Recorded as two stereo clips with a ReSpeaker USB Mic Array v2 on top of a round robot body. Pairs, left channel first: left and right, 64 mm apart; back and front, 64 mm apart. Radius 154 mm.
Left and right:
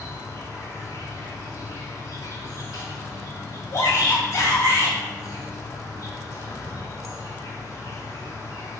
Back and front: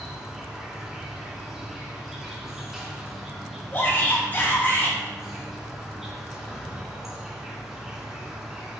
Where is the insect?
85° left, 2.5 m.